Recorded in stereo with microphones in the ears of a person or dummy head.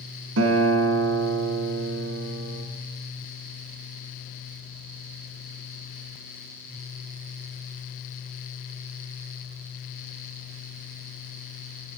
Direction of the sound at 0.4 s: 80° right.